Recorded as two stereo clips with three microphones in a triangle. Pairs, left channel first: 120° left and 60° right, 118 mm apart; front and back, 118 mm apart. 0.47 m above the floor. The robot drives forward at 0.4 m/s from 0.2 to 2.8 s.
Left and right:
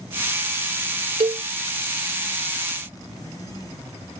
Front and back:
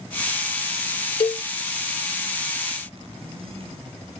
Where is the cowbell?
30° right; by 1.4 s 35° right.